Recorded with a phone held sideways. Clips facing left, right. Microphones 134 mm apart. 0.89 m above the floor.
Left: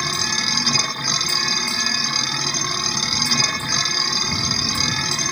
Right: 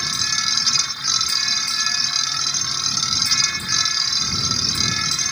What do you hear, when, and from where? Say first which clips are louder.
0.0 s a machine running: left 5 dB; 60° left (ahead or behind)